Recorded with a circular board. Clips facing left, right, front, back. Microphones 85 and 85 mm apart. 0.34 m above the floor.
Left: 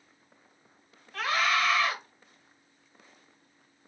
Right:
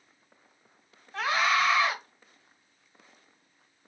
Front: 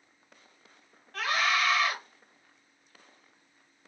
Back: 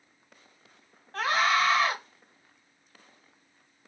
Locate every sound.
1.1 s a scream: 145° right, 1.1 m